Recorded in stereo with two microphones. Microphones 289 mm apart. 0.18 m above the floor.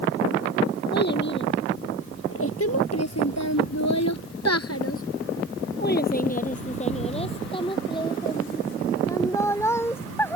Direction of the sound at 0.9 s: 35° left (ahead or behind).